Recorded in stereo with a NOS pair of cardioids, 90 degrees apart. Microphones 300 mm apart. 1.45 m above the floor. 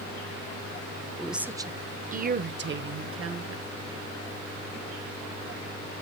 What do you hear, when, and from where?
1.2 s a woman speaking: straight ahead, 0.9 m; by 3.6 s 50° right, 1.7 m